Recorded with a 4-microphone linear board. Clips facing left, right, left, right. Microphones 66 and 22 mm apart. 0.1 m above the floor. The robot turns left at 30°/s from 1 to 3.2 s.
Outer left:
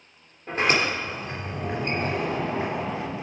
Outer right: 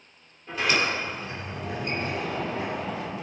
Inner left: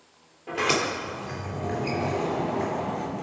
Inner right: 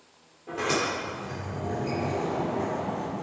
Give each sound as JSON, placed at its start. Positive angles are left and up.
{"t": 0.5, "sound": "a sliding door", "azimuth_deg": 110, "distance_m": 2.5}